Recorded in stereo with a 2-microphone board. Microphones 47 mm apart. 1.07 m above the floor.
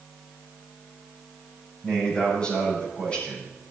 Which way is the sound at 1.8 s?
20° left (ahead or behind).